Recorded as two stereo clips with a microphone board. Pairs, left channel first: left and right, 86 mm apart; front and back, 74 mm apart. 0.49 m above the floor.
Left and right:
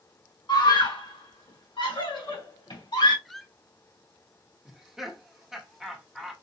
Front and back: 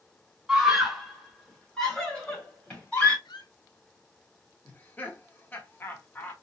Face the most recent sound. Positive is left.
turn(degrees=-10)